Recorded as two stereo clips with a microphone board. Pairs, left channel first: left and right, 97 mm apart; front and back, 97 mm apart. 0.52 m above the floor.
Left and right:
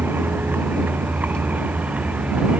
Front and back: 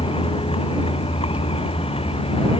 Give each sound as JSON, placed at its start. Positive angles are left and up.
{"t": 0.0, "sound": "a vehicle", "azimuth_deg": -20}